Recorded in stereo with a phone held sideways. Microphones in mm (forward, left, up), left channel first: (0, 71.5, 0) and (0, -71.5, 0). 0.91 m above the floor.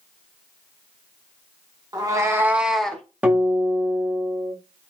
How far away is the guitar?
About 1.3 m.